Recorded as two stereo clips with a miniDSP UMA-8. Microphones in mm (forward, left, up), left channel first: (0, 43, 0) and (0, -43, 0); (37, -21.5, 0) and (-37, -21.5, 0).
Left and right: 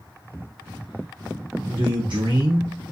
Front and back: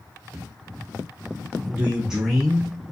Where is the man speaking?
120° right, 0.9 m; by 2.8 s 65° right, 0.9 m.